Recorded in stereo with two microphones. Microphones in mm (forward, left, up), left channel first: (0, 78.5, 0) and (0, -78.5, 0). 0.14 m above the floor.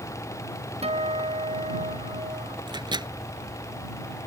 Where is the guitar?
40° right (ahead or behind).